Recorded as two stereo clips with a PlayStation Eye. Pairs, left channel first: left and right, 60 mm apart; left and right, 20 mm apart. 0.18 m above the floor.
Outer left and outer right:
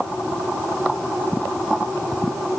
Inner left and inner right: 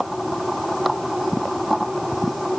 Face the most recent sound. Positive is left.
No sound to turn to.